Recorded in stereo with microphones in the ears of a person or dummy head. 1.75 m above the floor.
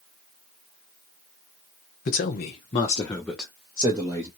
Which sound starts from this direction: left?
A man speaking, at 2.0 s.